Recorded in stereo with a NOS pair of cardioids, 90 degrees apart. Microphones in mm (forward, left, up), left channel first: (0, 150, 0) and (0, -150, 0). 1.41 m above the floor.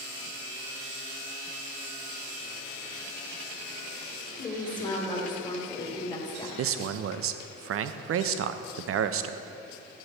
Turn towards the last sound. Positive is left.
turn(degrees=-50)